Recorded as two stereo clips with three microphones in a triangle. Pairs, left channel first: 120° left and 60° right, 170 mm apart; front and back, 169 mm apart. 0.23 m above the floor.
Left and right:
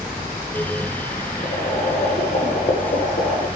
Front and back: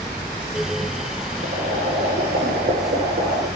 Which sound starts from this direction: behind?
Boiling, at 1.4 s.